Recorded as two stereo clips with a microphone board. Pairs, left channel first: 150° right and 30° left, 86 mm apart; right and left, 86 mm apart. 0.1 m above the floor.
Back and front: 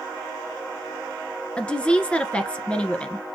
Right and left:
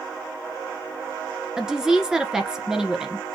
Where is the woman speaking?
160° left, 1.3 m.